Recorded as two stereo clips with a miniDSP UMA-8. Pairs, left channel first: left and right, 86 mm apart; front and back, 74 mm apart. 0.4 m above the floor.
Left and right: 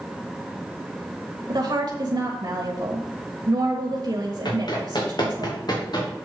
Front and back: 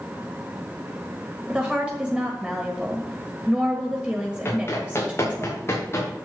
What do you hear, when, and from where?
1.5 s a woman speaking: 105° right, 1.4 m
4.5 s running footsteps: 55° left, 3.5 m